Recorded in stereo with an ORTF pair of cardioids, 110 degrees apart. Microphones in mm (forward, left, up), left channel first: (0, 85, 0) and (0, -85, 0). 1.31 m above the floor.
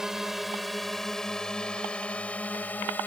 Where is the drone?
5° right; by 3.1 s 10° left.